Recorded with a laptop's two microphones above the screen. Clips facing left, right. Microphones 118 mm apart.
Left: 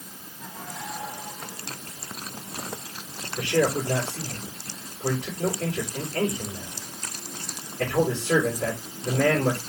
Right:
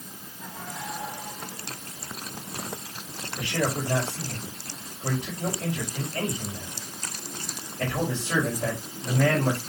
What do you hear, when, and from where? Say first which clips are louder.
3.4 s a man speaking: left 5 dB; 85° left, 4 m